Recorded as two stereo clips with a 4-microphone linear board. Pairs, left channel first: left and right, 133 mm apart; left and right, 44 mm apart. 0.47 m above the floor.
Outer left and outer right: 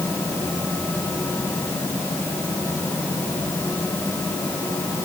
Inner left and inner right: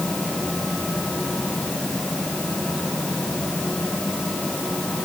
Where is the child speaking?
I don't hear a child speaking.